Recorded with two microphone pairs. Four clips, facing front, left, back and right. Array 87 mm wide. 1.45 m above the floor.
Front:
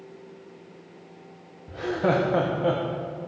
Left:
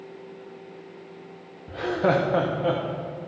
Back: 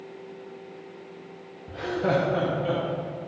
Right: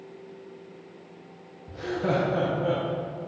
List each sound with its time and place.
1.7 s laughter: 100° left, 0.6 m; by 2.8 s 50° left, 0.9 m